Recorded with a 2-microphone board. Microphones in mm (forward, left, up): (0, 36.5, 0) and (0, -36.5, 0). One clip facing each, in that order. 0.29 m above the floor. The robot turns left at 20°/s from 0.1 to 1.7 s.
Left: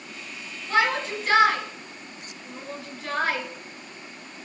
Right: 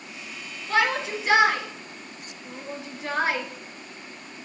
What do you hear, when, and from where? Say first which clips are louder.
0.7 s a shout: even; centre (ahead or behind), 4 m; by 3.5 s 20° right (ahead or behind), 4 m